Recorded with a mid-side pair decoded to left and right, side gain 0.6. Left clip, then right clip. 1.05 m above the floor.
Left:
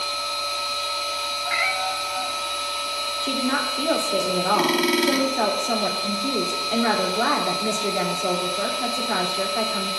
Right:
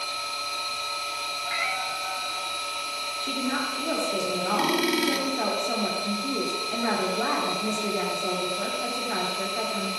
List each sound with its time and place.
0.0 s a machine running: 20° left, 1.9 m
1.4 s a cat meowing: 30° left, 1.7 m
3.2 s a woman speaking: 35° left, 2.5 m